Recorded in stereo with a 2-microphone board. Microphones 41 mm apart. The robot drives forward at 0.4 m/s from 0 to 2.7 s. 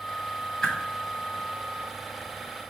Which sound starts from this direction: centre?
A whoosh, at 0.6 s.